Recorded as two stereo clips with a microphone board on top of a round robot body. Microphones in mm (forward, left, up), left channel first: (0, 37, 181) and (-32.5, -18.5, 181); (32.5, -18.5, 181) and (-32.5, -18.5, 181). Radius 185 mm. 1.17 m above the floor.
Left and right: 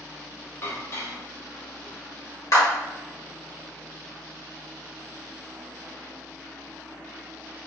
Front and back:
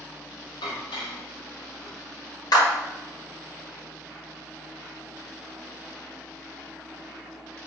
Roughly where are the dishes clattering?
Ahead.